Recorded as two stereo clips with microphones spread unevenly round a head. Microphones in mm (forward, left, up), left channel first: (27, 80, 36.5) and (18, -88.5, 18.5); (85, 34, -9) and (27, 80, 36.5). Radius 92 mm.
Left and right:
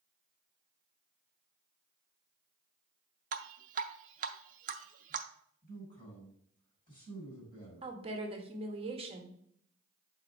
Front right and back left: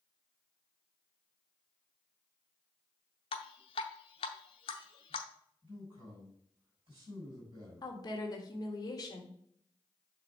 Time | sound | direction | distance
3.3 | dripping | 80° right | 0.6 m
5.6 | a man speaking | 150° left | 4 m
7.8 | a woman speaking | 40° right | 1.4 m